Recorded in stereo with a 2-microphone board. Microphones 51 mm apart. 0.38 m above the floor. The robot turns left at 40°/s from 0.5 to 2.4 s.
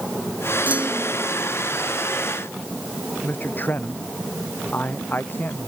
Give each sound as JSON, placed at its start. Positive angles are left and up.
{"t": 0.7, "sound": "a clunk", "side_deg": -30}
{"t": 3.2, "sound": "a man speaking", "side_deg": 40}